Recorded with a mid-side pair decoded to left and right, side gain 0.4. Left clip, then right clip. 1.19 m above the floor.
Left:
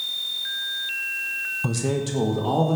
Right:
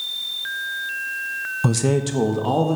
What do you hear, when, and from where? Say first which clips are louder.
1.6 s a man speaking: right 4 dB; 50° right, 0.9 m; by 2.8 s 20° right, 2 m